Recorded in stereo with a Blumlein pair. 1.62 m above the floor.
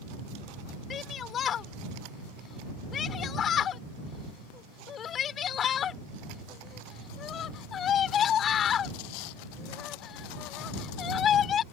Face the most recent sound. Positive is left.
turn(degrees=25)